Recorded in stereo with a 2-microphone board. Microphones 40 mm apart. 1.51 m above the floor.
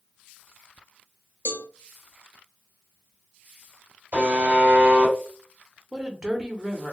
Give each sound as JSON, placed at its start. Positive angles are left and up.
{"t": 1.4, "sound": "a cowbell", "side_deg": 50, "distance_m": 0.8}
{"t": 4.1, "sound": "a buzzer", "side_deg": -55, "distance_m": 2.0}
{"t": 5.9, "sound": "a woman speaking", "side_deg": -20, "distance_m": 0.9}